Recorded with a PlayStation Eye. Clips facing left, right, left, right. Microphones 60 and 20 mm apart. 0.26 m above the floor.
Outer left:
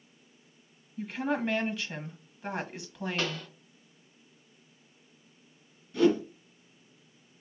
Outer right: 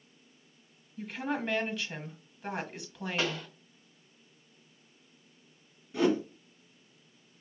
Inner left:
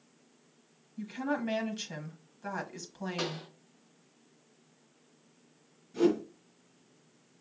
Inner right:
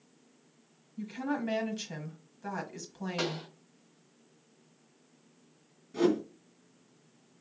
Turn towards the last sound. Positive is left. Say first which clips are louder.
# outer left 3 dB, even
turn(degrees=-25)  # may be behind; listen again after turning